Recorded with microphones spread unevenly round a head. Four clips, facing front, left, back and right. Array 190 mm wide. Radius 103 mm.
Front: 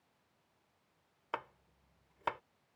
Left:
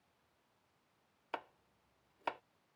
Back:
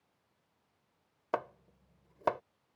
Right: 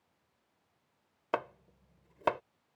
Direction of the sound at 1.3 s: 130° right.